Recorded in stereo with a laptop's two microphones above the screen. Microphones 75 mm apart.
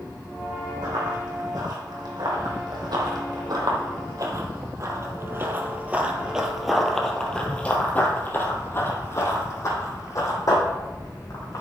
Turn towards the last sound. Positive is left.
turn(degrees=55)  # may be behind; listen again after turning